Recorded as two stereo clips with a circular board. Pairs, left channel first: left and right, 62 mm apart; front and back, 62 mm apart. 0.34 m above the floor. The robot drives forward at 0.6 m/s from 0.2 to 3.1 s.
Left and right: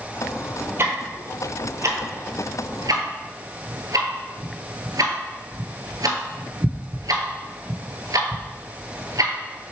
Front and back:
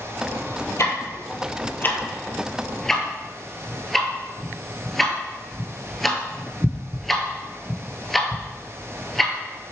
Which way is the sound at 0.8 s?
40° right.